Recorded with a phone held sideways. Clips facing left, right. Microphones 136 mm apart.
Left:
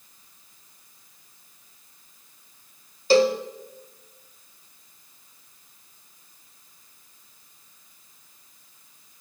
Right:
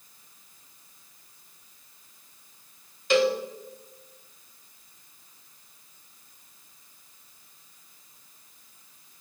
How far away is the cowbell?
About 1.2 m.